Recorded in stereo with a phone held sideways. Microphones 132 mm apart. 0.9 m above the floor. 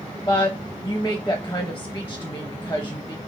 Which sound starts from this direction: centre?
A woman speaking, at 0.3 s.